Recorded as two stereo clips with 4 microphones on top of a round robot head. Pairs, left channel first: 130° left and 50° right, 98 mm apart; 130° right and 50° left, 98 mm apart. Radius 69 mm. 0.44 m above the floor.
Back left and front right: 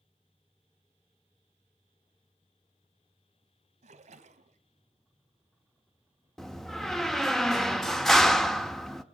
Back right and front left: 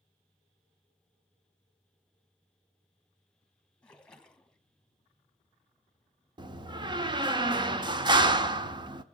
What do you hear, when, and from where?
3.8 s a splash: 50° right, 1.5 m
6.4 s a door slam: 45° left, 1.1 m